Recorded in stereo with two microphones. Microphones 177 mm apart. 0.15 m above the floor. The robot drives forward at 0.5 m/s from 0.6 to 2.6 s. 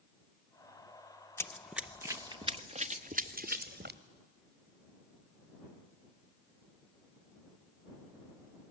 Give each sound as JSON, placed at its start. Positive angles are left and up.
{"t": 1.4, "sound": "running footsteps", "side_deg": 15, "distance_m": 0.7}